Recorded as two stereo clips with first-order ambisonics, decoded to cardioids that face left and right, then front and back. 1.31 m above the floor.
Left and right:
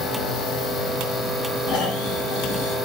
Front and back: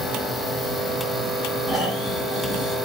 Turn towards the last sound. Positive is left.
turn(degrees=90)